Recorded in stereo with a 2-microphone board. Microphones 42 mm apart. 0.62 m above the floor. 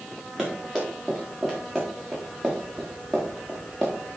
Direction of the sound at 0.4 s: 5° left (ahead or behind).